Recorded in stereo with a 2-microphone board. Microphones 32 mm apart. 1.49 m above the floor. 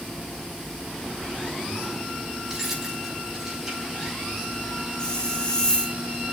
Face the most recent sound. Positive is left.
turn(degrees=20)  # may be behind; listen again after turning